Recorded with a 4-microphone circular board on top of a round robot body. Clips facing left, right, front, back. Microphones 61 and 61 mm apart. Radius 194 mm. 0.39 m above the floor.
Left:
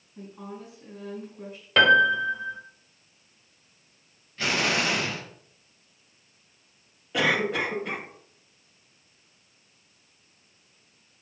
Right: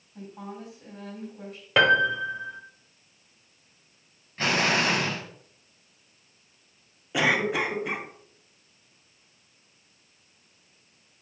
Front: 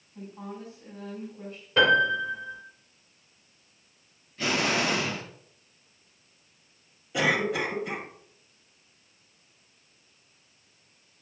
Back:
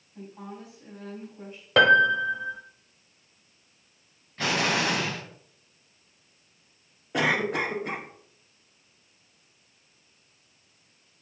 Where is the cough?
165° right, 1.7 m.